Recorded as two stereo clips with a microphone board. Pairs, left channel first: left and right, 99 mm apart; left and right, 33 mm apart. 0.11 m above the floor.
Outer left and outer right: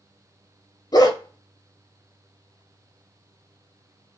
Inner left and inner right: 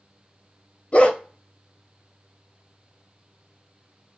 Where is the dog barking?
40° left (ahead or behind), 0.5 m.